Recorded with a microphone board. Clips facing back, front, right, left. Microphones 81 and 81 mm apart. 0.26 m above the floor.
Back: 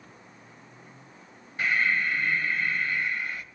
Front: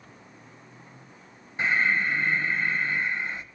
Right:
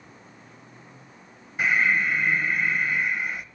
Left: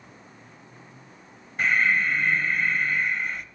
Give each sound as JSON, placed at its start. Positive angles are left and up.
{"t": 1.6, "sound": "breathing", "azimuth_deg": -20, "distance_m": 0.7}